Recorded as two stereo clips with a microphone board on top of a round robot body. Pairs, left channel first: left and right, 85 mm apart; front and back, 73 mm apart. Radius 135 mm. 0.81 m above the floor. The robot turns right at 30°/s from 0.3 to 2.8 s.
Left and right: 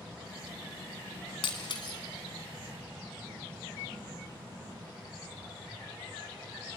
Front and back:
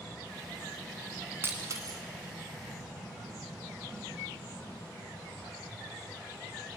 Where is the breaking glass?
115° left, 1.6 m; by 2.0 s 130° left, 1.6 m.